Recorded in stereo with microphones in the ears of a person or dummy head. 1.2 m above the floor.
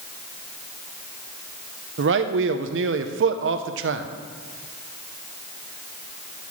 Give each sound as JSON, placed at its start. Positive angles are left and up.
{"t": 2.0, "sound": "a man speaking", "side_deg": -60, "distance_m": 0.6}